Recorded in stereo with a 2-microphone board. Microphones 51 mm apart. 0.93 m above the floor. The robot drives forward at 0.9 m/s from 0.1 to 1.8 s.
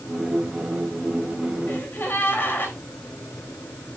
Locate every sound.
1.7 s a gasp: 45° left (ahead or behind), 3.5 m